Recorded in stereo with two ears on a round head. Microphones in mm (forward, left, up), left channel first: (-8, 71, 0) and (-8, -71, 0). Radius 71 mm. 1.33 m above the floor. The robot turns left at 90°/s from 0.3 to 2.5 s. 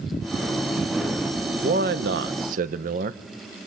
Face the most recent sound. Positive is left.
turn(degrees=-120)